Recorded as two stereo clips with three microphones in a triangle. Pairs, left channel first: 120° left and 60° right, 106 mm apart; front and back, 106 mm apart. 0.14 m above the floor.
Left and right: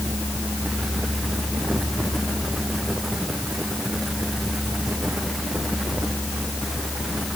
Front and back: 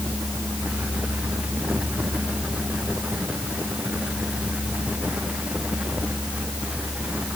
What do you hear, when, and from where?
Only background noise.